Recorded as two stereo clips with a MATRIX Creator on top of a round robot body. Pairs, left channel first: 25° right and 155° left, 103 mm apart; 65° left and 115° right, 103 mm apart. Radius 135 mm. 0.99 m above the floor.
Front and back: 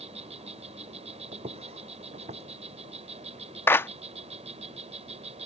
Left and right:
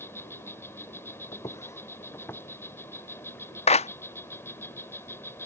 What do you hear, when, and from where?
0.0 s an insect: 135° left
1.3 s footsteps: 125° left; by 3.5 s 145° left
3.7 s a clap: 50° left